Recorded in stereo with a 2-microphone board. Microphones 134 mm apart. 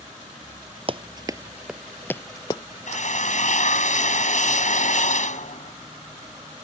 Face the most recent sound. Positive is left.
turn(degrees=65)  # may be behind; listen again after turning